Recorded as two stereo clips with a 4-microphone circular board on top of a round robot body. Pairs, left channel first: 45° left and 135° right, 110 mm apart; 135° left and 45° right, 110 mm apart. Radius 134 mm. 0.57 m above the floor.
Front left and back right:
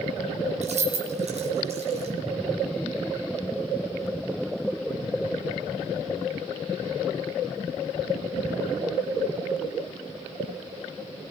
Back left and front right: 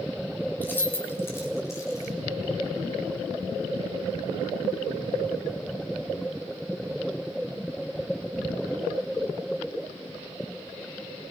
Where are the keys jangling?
150° right, 3.5 m; by 2.1 s 165° right, 4 m.